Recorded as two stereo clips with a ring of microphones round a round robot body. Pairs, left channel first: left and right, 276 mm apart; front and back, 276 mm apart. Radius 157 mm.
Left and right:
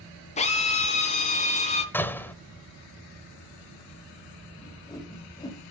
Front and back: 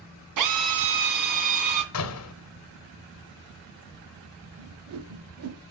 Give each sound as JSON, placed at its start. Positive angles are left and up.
{"t": 0.4, "sound": "a drill", "azimuth_deg": 160, "distance_m": 2.0}
{"t": 1.9, "sound": "a door slam", "azimuth_deg": 10, "distance_m": 1.1}
{"t": 4.6, "sound": "a whoosh", "azimuth_deg": 165, "distance_m": 1.0}